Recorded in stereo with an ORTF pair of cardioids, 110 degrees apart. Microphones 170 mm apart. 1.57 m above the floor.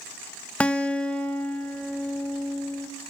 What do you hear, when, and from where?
0.6 s a guitar: 5° left, 0.8 m